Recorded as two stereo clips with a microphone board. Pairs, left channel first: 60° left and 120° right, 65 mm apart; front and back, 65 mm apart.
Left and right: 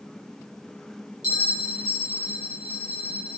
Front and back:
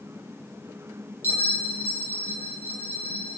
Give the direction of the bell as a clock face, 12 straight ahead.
10 o'clock.